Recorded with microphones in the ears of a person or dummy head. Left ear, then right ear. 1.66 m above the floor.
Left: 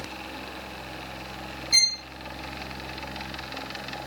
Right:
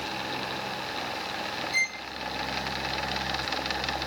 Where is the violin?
65° left (ahead or behind), 1.3 m.